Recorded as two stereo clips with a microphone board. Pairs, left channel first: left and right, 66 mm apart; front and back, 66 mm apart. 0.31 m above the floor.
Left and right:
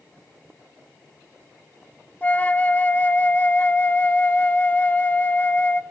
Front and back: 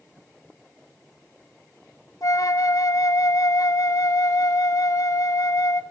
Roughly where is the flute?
Ahead left.